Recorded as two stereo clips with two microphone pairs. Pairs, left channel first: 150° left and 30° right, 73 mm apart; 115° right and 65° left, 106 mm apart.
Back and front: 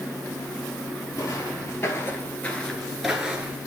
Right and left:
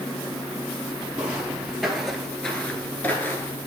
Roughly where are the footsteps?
Behind left.